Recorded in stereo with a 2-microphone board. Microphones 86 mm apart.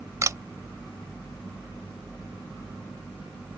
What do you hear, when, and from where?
0.2 s a camera shutter: 40° right (ahead or behind)